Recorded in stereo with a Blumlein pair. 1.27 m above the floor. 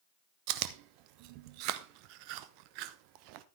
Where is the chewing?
45° right, 0.7 m.